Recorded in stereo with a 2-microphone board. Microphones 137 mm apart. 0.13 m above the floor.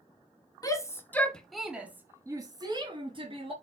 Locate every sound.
0.6 s a shout: 25° left (ahead or behind), 1.8 m; by 3.5 s 45° right (ahead or behind), 2.5 m